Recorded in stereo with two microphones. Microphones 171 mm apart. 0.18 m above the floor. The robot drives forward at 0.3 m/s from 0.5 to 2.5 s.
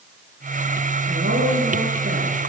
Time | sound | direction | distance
1.1 | a woman speaking | 70° right (ahead or behind) | 10 m